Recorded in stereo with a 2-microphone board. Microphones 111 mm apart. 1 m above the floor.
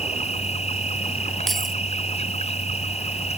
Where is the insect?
80° left.